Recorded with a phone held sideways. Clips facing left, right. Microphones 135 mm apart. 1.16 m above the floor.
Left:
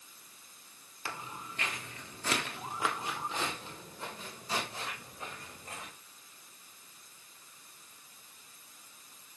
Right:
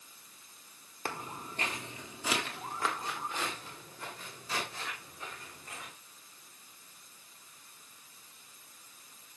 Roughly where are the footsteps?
Right.